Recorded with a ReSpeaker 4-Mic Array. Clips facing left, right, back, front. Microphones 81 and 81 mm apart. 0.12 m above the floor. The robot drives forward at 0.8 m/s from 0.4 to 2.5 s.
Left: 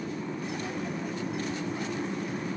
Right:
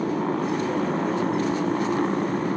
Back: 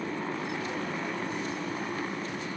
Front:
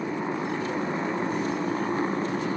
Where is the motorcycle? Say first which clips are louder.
Right 10 dB, front 4 dB; 75° right; by 2.6 s 55° right.